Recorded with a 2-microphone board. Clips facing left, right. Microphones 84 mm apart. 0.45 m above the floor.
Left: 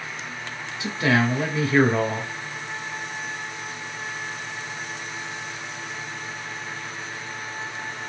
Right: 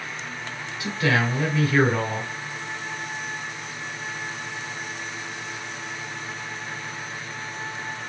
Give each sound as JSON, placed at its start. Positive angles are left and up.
{"t": 0.8, "sound": "a man speaking", "side_deg": 25, "distance_m": 1.6}